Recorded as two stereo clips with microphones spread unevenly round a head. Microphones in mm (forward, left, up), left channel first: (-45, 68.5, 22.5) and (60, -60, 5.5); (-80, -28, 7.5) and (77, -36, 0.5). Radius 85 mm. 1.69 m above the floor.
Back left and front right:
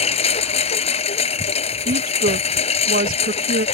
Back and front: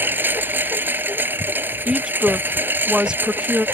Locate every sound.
0.0 s a lawn mower: 80° left
1.9 s a woman speaking: 90° right